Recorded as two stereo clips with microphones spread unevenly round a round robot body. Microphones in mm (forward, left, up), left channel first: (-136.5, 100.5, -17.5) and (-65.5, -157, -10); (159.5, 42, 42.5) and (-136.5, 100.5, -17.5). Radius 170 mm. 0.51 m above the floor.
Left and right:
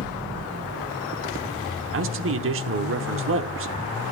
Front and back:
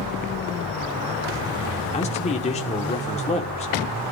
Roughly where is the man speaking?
Right.